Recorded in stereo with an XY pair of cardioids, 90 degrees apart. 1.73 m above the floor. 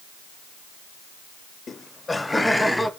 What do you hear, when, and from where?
1.7 s laughter: 50° left, 0.7 m; by 2.9 s 10° left, 1.9 m